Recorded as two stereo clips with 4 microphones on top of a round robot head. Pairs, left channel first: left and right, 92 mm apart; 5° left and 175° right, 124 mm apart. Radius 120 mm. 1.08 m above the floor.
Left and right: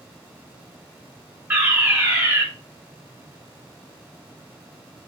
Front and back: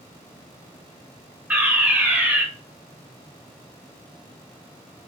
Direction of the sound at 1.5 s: 115° right.